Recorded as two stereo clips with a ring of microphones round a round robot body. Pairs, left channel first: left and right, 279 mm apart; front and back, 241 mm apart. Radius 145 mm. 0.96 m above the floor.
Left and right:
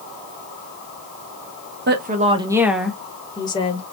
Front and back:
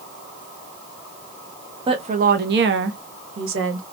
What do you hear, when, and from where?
1.9 s a woman speaking: 120° right, 0.8 m; by 3.8 s 160° left, 1.4 m